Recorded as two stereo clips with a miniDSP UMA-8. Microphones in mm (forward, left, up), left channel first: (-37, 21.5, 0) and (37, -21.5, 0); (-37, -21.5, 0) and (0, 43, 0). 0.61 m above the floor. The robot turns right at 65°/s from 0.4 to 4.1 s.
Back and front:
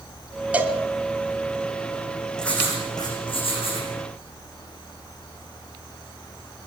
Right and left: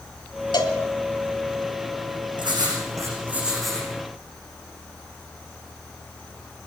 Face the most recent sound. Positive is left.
turn(degrees=180)